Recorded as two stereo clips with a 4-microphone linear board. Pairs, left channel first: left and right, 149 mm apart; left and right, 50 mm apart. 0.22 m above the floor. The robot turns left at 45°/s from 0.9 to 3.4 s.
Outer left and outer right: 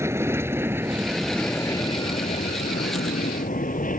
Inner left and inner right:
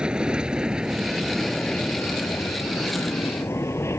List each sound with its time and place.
0.0 s an aircraft: 20° right (ahead or behind); by 4.0 s 70° left (ahead or behind)